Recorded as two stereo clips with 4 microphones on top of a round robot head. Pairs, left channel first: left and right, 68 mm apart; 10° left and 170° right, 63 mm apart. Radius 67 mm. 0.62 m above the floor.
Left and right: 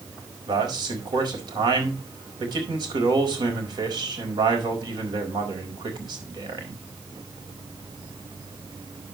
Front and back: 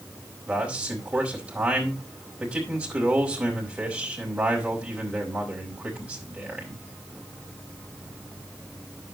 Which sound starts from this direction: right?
A man speaking, at 0.5 s.